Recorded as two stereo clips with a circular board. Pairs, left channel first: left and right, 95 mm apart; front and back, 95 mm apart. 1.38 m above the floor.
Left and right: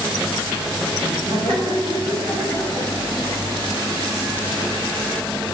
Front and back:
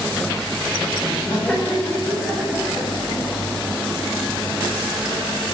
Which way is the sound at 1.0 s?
70° right.